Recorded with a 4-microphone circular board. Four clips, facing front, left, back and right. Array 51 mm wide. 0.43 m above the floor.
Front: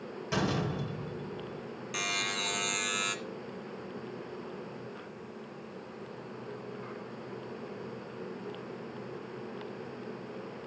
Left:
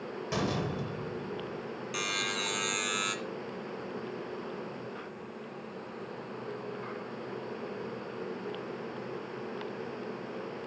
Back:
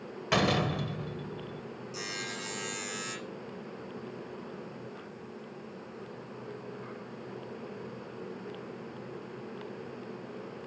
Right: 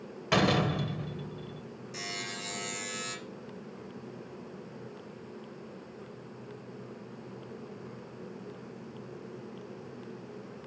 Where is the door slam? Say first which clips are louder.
Right 7 dB, back 4 dB; 135° right, 1.0 m.